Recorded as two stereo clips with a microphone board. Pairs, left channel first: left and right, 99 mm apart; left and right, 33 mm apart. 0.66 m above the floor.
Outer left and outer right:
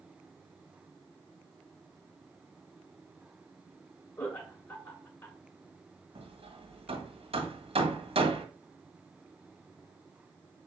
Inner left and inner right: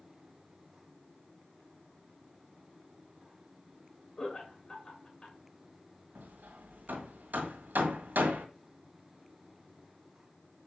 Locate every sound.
4.2 s laughter: 35° left (ahead or behind), 1.6 m
6.2 s hammering: 85° right, 1.6 m